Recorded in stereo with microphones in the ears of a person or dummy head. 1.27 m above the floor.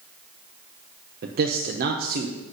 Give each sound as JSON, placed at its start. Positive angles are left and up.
{"t": 1.2, "sound": "a man speaking", "side_deg": -55, "distance_m": 1.0}